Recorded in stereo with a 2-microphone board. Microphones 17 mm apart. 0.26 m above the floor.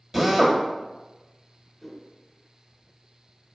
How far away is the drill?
About 1.0 m.